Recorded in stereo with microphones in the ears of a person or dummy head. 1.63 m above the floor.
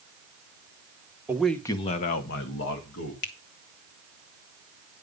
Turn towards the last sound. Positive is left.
turn(degrees=50)  # may be behind; listen again after turning